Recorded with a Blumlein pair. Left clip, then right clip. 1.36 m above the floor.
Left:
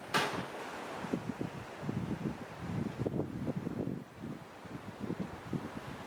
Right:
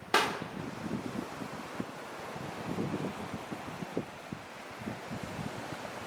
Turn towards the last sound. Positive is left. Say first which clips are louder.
# right 4 dB
turn(degrees=-15)